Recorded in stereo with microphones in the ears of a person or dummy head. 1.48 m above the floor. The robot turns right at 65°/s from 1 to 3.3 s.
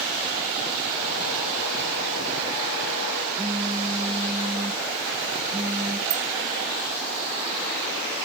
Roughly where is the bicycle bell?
Right.